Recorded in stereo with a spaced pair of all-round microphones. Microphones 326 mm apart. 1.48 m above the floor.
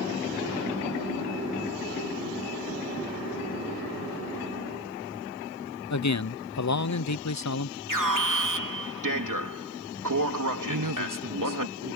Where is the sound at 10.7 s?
75° right (ahead or behind).